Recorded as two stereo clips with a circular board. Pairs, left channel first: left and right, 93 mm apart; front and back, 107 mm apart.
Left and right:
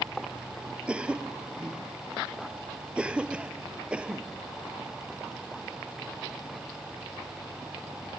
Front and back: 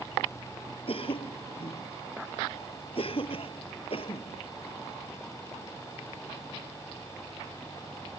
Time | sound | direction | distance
0.9 | a cough | 15° right | ?